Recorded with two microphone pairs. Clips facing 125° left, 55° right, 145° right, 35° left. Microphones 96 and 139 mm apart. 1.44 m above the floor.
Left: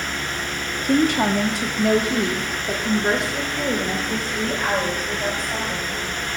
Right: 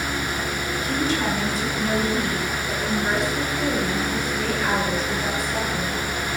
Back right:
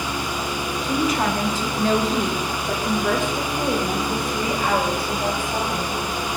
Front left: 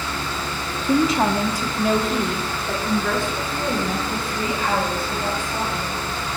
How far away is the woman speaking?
About 0.9 m.